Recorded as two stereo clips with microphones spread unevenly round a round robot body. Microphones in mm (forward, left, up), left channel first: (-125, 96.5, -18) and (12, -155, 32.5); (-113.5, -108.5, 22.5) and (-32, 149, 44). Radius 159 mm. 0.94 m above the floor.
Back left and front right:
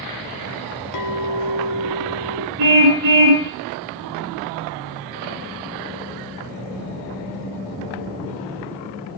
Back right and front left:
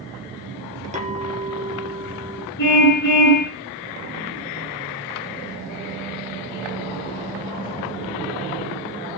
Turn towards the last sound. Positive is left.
turn(degrees=-70)